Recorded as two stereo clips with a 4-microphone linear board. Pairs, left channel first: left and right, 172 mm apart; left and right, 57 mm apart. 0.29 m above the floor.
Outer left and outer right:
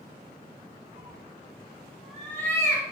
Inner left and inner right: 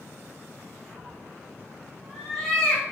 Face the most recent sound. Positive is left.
turn(degrees=30)  # may be behind; listen again after turning